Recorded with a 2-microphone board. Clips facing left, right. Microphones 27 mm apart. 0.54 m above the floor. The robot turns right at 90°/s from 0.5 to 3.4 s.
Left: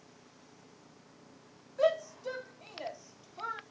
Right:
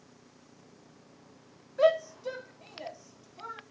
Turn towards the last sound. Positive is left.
turn(degrees=25)  # may be behind; listen again after turning